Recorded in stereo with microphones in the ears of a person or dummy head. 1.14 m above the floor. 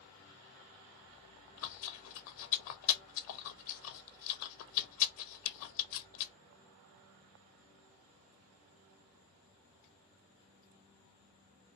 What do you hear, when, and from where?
1.1 s chewing: 75° left (ahead or behind), 0.7 m